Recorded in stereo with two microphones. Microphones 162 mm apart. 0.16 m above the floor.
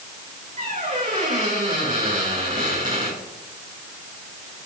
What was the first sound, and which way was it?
A squeak, 50° right (ahead or behind).